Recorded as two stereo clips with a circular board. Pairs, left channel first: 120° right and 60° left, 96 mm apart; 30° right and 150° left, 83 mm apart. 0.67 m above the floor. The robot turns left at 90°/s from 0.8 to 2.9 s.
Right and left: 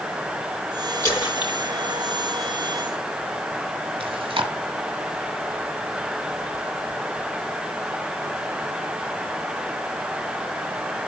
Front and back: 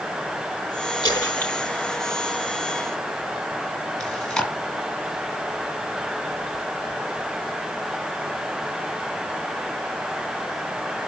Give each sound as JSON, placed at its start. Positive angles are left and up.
{"t": 1.0, "sound": "a splash", "azimuth_deg": -60, "distance_m": 3.5}
{"t": 4.0, "sound": "chewing", "azimuth_deg": 50, "distance_m": 2.0}